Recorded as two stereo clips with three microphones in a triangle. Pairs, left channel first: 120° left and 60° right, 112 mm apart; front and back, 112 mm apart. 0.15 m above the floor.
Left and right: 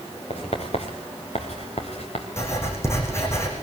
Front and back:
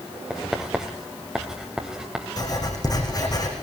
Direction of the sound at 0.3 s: 95° left.